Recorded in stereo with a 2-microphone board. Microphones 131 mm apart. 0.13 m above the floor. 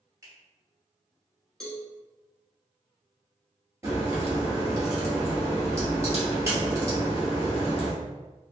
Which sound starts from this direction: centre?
A cowbell, at 1.6 s.